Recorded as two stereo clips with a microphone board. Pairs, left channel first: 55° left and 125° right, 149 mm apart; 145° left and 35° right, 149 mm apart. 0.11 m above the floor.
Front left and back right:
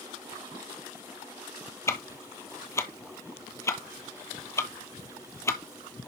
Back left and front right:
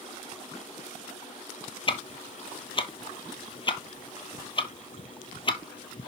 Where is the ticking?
115° left, 0.6 m.